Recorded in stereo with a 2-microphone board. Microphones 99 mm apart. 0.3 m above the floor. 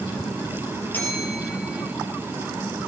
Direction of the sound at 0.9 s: 20° left (ahead or behind).